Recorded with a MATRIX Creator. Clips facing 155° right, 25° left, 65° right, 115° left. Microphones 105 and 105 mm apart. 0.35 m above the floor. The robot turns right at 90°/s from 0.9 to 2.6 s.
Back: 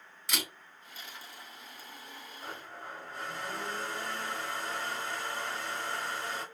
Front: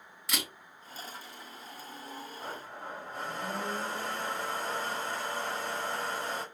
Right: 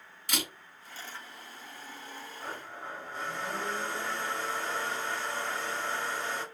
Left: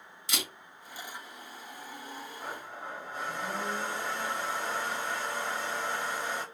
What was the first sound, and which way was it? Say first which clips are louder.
A camera shutter: even, right 2 dB; 65° right.